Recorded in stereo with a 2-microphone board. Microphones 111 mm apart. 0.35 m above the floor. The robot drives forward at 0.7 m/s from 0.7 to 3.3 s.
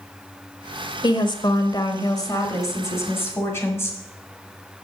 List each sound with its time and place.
1.0 s a woman speaking: 40° left (ahead or behind), 1.0 m; by 4.0 s 25° left (ahead or behind), 1.7 m